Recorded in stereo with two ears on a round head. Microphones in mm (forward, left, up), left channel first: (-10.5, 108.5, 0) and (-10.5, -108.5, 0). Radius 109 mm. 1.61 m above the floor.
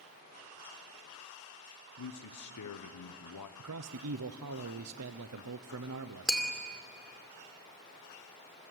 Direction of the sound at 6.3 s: Centre (ahead or behind).